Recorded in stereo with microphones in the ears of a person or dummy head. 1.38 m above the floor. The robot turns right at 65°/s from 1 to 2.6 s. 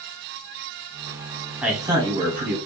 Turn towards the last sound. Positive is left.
turn(degrees=-115)